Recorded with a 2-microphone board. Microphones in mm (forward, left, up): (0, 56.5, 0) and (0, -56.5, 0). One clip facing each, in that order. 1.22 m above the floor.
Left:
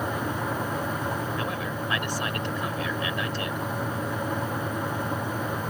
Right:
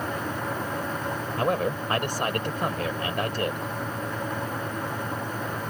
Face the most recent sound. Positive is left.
turn(degrees=-45)  # may be behind; listen again after turning